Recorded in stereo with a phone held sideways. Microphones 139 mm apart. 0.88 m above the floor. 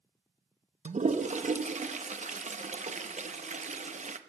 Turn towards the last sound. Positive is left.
turn(degrees=-60)  # may be behind; listen again after turning